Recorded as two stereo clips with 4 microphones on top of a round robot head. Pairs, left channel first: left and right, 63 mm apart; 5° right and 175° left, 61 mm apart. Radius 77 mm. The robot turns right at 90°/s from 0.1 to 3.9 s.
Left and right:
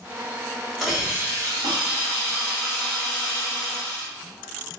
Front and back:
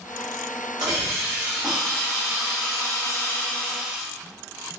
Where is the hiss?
175° right, 1.0 m; by 4.1 s 100° left, 1.0 m.